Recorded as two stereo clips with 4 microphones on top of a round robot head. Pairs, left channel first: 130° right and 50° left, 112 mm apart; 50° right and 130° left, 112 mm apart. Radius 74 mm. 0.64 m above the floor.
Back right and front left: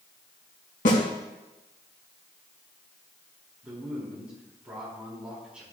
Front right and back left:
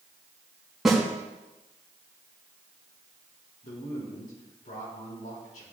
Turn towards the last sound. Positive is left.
turn(degrees=-30)